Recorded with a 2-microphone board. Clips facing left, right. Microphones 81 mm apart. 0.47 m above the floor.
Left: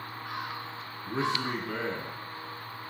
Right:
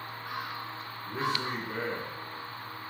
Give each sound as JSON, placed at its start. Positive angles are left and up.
{"t": 1.1, "sound": "a man speaking", "side_deg": 65, "distance_m": 4.0}